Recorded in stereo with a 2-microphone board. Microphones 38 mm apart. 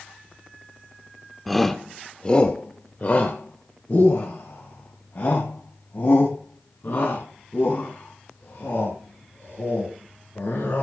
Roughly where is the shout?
Centre.